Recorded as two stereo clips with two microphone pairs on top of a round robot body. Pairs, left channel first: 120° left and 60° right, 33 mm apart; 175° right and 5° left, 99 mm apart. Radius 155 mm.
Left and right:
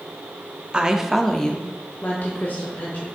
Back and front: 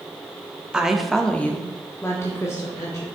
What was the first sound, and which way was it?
A woman speaking, 70° right.